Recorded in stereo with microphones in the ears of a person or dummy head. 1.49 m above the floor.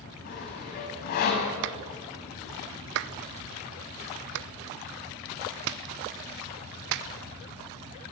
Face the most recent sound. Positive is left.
turn(degrees=-65)  # may be behind; listen again after turning